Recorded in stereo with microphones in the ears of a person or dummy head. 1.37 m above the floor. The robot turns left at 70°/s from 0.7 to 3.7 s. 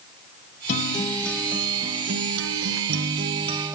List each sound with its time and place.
0.7 s a guitar: 45° left, 0.8 m; by 3.8 s 165° right, 0.8 m